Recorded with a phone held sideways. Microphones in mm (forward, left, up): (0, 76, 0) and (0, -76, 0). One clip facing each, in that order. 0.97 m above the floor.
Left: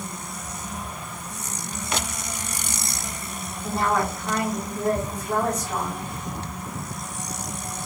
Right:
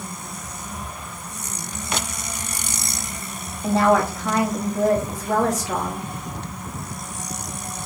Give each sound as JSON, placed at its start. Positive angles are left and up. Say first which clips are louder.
{"t": 3.6, "sound": "a woman speaking", "louder": "right 6 dB", "side_deg": -80, "distance_m": 1.3}